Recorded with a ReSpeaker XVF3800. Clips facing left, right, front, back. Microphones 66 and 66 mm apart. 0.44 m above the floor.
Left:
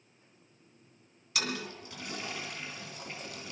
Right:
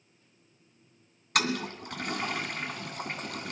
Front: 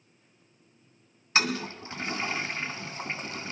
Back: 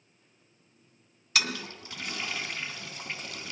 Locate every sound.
1.4 s a toilet flushing: 60° right, 2.5 m